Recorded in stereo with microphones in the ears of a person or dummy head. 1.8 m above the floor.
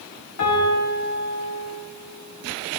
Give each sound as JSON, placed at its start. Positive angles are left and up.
{"t": 0.4, "sound": "a piano", "side_deg": 75, "distance_m": 4.5}